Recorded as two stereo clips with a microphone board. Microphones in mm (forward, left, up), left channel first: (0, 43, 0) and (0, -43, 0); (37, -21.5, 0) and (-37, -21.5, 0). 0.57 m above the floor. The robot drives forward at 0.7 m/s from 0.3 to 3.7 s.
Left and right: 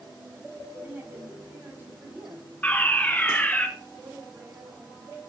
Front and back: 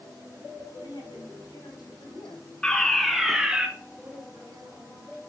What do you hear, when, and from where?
0.8 s a woman speaking: 20° right, 5 m; by 2.5 s 30° right, 4 m
2.6 s a fire alarm: 55° left, 1.7 m; by 3.7 s 130° left, 1.7 m
4.0 s a woman speaking: 150° right, 5.5 m